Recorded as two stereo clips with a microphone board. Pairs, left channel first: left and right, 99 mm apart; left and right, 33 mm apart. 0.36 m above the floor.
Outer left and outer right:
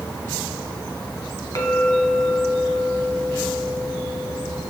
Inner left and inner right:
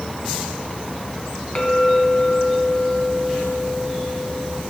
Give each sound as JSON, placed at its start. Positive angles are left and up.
{"t": 1.6, "sound": "a clink", "side_deg": 40, "distance_m": 2.5}